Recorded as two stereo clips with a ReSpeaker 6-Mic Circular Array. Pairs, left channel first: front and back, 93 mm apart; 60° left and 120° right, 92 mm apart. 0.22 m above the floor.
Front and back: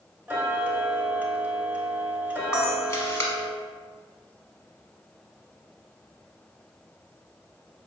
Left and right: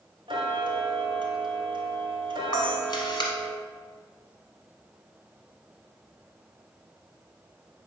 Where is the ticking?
110° right, 0.8 m.